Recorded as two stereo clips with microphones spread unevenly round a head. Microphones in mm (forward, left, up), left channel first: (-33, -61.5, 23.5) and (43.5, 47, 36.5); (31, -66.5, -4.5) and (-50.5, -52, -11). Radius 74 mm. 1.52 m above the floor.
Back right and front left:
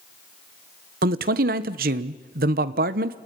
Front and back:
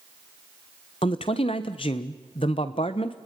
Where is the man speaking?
40° left, 1.2 m.